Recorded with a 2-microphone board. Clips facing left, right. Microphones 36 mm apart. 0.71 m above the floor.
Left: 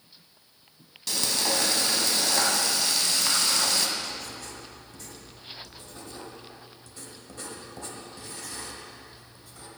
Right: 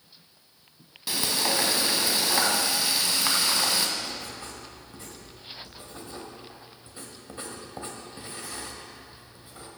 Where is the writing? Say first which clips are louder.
Even; 25° right (ahead or behind), 1.7 m.